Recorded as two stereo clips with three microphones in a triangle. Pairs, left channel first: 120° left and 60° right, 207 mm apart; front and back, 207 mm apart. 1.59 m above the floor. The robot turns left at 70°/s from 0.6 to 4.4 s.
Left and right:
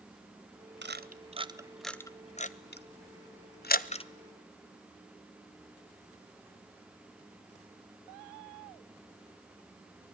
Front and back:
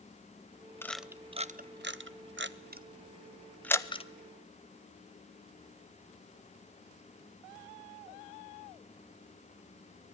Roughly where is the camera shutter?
Right.